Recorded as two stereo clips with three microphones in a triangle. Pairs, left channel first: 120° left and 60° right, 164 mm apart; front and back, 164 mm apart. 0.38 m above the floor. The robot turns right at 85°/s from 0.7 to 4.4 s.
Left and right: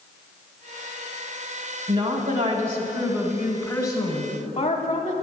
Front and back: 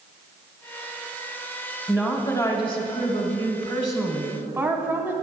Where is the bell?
No bell in this recording.